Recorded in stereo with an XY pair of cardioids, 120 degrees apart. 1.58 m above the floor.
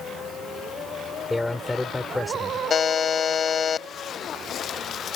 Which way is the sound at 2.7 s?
40° left.